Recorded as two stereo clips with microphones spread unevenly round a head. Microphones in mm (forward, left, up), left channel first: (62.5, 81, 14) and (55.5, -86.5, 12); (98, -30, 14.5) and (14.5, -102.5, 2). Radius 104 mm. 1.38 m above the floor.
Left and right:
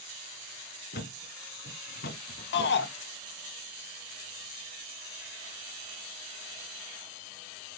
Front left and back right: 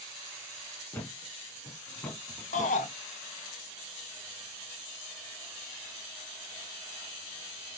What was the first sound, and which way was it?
A thud, 115° left.